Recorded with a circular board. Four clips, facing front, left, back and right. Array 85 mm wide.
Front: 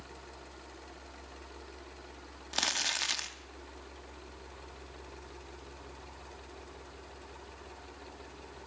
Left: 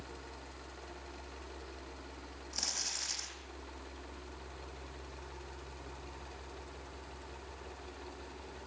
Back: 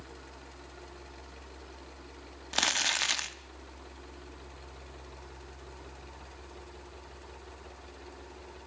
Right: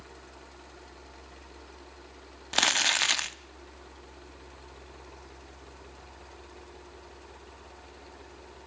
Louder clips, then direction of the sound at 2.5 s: Right 21 dB, back 4 dB; 105° right.